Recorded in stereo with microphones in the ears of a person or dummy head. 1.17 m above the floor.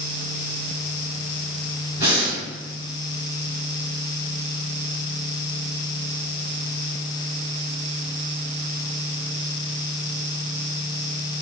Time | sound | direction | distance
2.0 | breathing | 15° right (ahead or behind) | 1.5 m